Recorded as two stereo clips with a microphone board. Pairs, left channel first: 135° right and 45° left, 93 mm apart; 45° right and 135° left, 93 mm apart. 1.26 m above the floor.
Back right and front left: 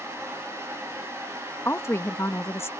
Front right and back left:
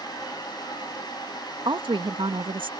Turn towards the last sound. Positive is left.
turn(degrees=165)